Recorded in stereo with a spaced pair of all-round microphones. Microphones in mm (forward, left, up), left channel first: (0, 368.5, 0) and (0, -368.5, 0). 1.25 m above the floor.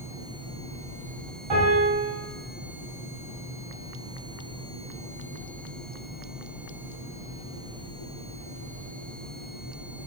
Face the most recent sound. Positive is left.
turn(degrees=-40)  # may be behind; listen again after turning